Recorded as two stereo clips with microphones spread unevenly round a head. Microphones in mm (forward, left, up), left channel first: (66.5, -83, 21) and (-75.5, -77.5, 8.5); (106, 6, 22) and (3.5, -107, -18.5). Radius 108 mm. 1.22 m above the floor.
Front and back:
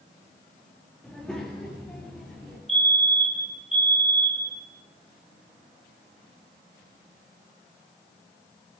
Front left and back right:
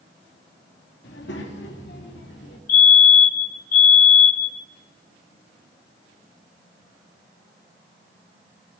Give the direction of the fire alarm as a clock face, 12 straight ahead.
9 o'clock.